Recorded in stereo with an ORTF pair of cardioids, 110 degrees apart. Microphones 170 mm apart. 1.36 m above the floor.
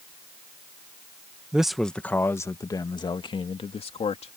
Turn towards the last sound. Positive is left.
turn(degrees=40)